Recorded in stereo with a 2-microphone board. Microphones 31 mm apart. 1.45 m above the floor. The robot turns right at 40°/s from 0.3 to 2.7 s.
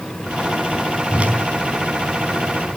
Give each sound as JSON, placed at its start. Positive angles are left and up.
{"t": 1.1, "sound": "a whoosh", "side_deg": -40, "distance_m": 4.0}